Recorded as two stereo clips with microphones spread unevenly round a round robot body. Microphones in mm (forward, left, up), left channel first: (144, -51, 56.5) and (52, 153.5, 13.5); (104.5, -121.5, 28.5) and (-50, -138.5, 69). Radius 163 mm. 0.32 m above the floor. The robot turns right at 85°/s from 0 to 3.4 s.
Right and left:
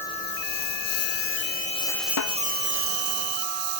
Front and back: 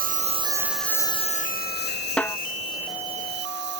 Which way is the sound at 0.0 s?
150° right.